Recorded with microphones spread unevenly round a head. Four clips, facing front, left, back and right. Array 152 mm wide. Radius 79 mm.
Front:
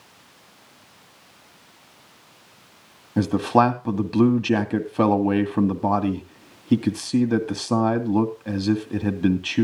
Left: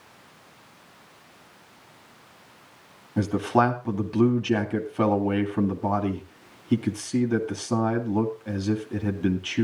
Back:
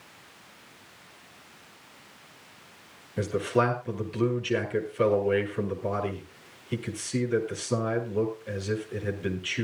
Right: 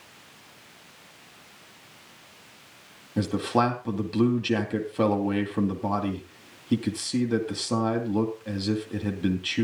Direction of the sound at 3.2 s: Straight ahead.